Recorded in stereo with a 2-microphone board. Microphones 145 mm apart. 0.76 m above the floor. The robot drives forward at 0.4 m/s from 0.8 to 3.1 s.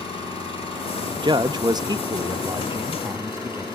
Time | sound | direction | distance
0.0 | an engine running | 40° left (ahead or behind) | 5.5 m
1.1 | a man speaking | 30° right (ahead or behind) | 0.5 m